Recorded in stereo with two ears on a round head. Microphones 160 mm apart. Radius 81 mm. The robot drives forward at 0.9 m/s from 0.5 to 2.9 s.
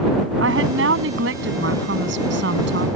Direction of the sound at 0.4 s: 85° right.